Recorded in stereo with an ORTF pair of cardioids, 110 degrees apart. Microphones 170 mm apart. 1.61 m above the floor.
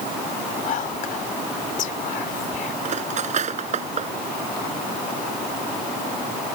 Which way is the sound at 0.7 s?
55° left.